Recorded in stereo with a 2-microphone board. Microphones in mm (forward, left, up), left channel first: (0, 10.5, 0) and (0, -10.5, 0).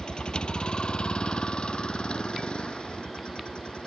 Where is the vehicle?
45° left (ahead or behind); by 3.9 s 55° left (ahead or behind).